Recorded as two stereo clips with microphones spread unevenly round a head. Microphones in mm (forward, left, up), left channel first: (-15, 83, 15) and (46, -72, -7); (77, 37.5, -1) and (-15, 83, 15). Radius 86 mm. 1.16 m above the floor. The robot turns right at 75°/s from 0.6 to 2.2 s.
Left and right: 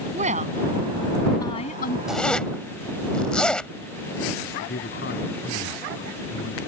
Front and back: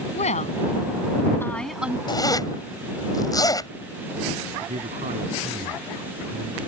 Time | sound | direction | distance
0.1 | a woman speaking | 20° right | ?
2.1 | a zipper | 20° left | ?
4.6 | a man speaking | 150° left | ?